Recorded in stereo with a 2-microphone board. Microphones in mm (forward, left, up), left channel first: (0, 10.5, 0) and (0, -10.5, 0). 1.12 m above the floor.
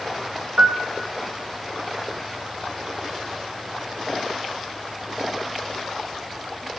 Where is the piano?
50° right (ahead or behind), 0.7 m.